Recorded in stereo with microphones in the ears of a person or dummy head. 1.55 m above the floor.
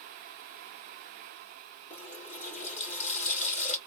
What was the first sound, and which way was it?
A running tap, 40° left (ahead or behind).